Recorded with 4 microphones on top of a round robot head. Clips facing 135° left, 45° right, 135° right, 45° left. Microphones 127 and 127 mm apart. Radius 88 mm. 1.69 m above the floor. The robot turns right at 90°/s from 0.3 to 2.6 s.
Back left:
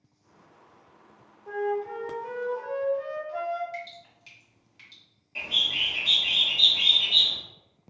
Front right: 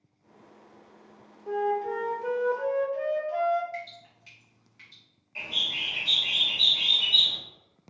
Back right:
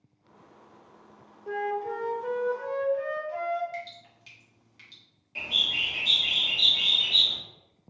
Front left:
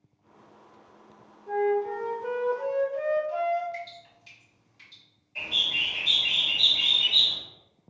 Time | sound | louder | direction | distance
1.5 | a flute | front right 2 dB, front left 5 dB | 120° right | 0.6 m
3.7 | dripping | even, even | 160° right | 1.4 m
5.3 | a bird | back left 2 dB, even | 160° right | 1.4 m